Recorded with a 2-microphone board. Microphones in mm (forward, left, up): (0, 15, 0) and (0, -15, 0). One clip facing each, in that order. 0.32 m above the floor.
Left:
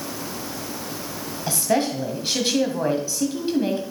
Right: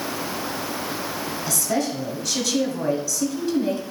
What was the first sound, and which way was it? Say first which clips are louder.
A woman speaking: left 4 dB; 35° left (ahead or behind).